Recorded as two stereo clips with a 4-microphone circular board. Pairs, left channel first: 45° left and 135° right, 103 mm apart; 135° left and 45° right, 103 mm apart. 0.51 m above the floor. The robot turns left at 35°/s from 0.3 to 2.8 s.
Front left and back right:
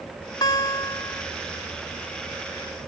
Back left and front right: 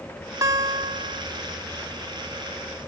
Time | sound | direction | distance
0.4 | a guitar | 5° left | ?